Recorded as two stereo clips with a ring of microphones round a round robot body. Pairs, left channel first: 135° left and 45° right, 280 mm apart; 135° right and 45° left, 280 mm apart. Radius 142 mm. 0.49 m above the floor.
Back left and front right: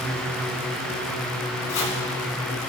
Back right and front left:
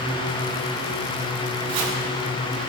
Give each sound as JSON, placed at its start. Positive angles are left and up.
{"t": 1.7, "sound": "chopping", "azimuth_deg": 90, "distance_m": 2.0}